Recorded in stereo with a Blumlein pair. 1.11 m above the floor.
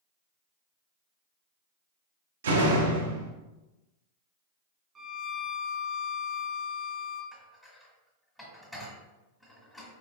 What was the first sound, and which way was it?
A door slam, 65° right.